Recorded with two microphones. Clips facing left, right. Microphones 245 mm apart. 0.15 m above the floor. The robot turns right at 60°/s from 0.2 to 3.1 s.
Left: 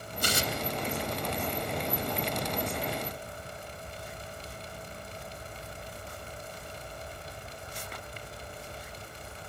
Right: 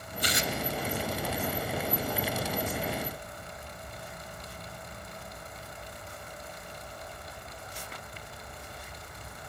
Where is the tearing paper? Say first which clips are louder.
Even; 50° left (ahead or behind), 0.6 m; by 0.5 s 40° left (ahead or behind), 0.6 m.